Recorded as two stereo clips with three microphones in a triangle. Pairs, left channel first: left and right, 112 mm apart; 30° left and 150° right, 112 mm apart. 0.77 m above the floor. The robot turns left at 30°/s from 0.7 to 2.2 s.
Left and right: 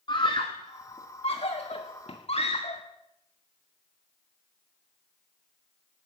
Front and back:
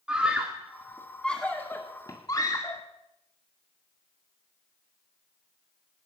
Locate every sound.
0.1 s a scream: 130° left, 1.9 m; by 2.8 s 85° left, 1.9 m